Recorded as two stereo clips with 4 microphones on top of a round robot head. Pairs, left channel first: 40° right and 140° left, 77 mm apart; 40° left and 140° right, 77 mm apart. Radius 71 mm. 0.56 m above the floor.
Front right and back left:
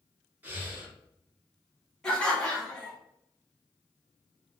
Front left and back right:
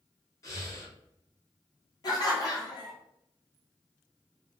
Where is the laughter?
40° left, 1.5 m.